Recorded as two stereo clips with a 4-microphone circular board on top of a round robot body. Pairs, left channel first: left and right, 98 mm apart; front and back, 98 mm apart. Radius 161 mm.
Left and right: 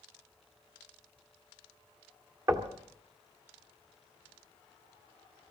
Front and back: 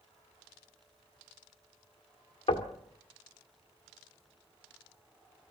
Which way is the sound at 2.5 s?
35° right.